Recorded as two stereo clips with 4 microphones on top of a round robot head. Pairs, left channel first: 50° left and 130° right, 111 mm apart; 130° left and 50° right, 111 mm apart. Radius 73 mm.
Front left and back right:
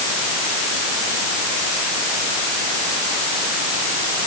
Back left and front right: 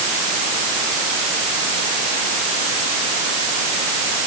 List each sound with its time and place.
Only background noise.